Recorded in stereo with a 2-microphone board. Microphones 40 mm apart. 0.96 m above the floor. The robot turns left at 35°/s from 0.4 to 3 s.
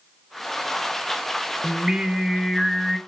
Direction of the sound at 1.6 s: 150° right.